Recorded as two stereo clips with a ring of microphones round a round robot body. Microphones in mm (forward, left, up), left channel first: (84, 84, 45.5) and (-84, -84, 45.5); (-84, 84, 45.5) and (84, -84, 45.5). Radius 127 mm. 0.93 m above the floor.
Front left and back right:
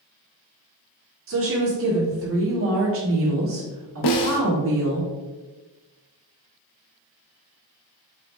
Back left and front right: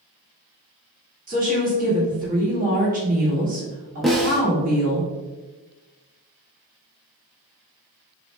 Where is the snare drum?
45° left, 0.6 m.